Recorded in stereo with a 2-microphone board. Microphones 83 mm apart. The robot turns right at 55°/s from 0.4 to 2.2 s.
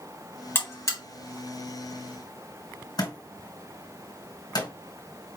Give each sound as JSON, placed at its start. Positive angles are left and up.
{"t": 0.6, "sound": "a buzzer", "side_deg": 25, "distance_m": 1.6}
{"t": 3.0, "sound": "a thud", "side_deg": 60, "distance_m": 3.0}